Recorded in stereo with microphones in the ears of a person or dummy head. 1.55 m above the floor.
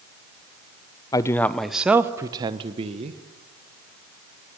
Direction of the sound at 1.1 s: 20° left (ahead or behind).